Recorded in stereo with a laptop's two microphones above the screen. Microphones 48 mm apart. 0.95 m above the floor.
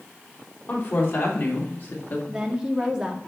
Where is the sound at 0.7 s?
50° left (ahead or behind), 3 m; by 2.2 s 40° left (ahead or behind), 1.9 m.